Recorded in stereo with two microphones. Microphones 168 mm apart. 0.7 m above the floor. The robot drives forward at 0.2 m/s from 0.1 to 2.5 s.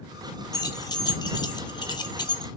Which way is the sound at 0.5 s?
25° left (ahead or behind).